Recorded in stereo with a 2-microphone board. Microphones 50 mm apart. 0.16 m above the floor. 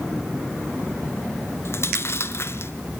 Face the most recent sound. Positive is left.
turn(degrees=55)  # may be behind; listen again after turning